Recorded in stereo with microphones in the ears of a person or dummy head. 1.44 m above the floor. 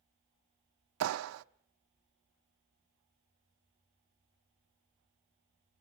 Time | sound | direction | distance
1.0 | a clap | 80° right | 0.7 m